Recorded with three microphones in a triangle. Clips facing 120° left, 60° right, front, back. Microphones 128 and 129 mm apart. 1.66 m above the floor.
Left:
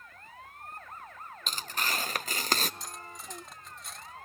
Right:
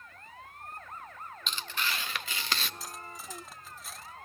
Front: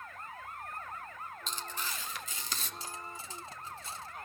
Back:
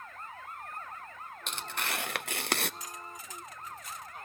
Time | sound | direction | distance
1.5 | tearing paper | 165° left | 0.6 m
2.8 | cutlery clinking | 25° left | 0.8 m